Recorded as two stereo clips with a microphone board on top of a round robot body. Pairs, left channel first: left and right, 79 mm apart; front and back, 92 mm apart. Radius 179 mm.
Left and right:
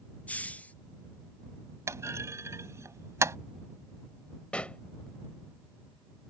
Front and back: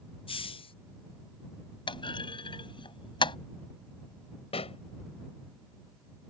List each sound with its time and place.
0.3 s a hiss: 15° left
1.9 s a clunk: 35° right
4.5 s a pop: 15° left